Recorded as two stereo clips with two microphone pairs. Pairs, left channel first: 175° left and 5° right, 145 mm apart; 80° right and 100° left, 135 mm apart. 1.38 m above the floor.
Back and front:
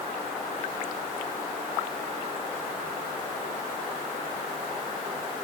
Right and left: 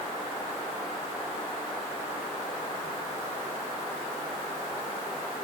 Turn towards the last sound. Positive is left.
No sound to turn to.